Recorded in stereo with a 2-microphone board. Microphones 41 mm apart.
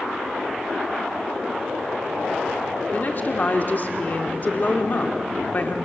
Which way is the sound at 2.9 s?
45° left (ahead or behind).